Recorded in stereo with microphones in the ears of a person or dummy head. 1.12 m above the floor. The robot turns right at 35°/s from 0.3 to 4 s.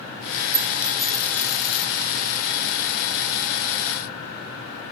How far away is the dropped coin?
About 1.4 m.